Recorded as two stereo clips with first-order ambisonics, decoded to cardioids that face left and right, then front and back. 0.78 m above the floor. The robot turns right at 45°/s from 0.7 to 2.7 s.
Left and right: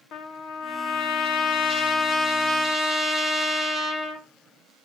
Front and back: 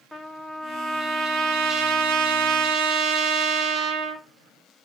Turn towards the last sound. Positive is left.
turn(degrees=-170)